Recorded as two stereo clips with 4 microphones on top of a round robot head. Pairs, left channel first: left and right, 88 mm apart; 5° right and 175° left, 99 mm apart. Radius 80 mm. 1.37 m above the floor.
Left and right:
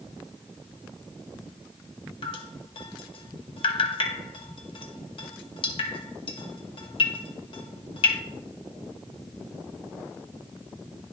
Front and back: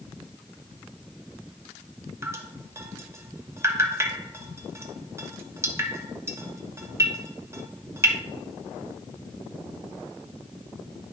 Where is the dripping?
115° left, 1.0 m.